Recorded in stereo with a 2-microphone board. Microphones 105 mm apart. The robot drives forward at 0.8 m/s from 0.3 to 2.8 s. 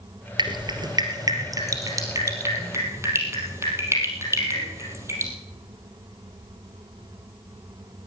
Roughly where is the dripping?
Right.